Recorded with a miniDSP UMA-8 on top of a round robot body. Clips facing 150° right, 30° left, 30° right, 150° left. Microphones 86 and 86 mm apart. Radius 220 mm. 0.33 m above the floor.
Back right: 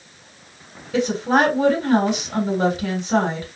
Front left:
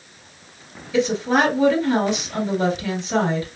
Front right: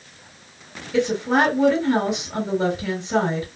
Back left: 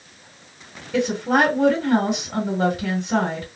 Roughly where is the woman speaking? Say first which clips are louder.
Even, even; behind.